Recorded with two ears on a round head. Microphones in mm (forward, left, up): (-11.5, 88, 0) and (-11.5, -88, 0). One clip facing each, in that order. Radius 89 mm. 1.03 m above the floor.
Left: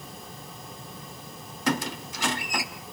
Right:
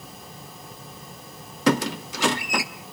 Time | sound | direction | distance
1.7 | a squeak | 55° right (ahead or behind) | 1.0 m